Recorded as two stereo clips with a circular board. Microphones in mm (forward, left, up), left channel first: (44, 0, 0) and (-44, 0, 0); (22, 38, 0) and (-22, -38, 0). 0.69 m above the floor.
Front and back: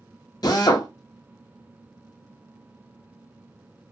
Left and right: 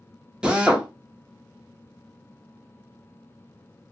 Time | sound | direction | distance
0.4 | a drill | 40° right | 0.7 m